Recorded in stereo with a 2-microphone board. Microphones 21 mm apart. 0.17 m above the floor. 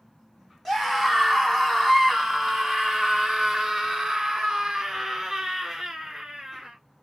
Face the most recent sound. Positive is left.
turn(degrees=-5)  # may be behind; listen again after turning